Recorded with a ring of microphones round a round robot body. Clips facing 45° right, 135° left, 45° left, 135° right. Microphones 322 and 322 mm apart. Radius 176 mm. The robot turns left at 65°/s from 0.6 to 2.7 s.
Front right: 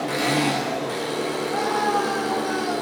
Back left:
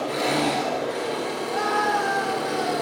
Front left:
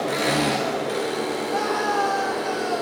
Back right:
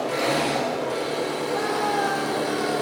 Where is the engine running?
15° left, 6 m; by 2.8 s 120° right, 6 m.